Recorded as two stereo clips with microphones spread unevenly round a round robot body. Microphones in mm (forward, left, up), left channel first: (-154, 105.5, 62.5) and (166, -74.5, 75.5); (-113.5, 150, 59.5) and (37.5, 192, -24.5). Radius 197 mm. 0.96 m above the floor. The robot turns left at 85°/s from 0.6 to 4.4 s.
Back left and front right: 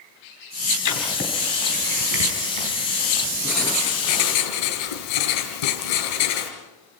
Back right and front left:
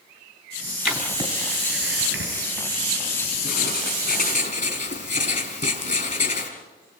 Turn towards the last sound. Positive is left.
turn(degrees=170)